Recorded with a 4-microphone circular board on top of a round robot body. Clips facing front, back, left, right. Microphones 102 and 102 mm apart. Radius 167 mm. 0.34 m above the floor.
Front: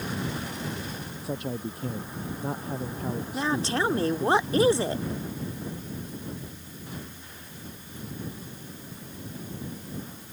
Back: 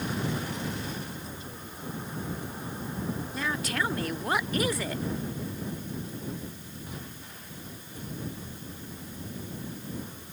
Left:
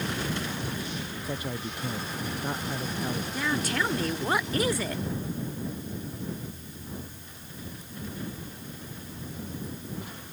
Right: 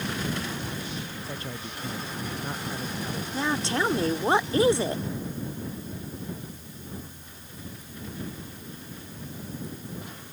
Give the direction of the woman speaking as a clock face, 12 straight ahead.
1 o'clock.